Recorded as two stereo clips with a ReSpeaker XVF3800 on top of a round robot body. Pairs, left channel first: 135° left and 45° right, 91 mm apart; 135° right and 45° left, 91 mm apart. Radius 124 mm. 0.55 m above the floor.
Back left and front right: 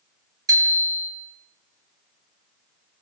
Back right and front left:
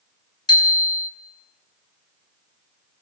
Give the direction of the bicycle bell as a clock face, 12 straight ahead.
3 o'clock.